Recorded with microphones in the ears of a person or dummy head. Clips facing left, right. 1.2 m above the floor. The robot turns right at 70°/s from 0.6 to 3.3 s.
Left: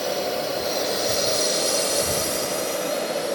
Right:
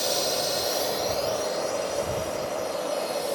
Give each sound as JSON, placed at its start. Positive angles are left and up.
{"t": 0.0, "sound": "a drone", "side_deg": -30}